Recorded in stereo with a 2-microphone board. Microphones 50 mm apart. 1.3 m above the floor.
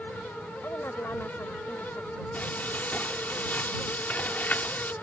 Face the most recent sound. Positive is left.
turn(degrees=40)  # may be behind; listen again after turning